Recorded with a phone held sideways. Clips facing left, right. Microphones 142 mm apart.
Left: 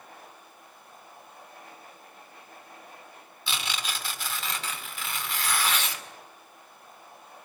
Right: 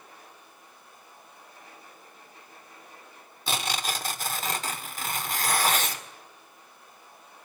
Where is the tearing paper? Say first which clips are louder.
Right 4 dB; 45° right (ahead or behind), 2.5 m.